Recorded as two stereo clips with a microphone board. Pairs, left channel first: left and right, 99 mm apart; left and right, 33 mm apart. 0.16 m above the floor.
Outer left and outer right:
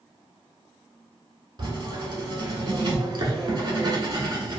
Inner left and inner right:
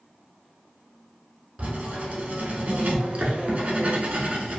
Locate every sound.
1.6 s writing: 45° right (ahead or behind), 0.7 m